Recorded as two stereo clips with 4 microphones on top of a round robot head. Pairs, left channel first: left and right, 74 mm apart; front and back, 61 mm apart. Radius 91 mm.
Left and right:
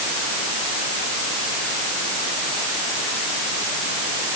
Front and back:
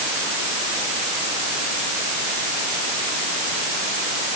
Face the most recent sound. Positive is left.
No sound to turn to.